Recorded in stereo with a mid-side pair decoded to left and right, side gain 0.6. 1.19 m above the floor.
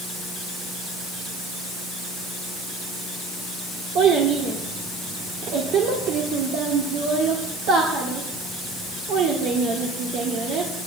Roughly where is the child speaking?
Ahead right.